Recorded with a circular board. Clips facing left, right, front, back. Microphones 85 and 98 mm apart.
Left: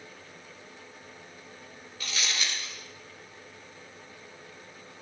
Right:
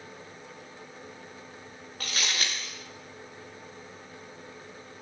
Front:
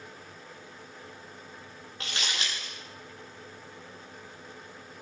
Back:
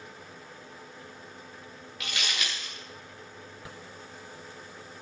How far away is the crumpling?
About 9 m.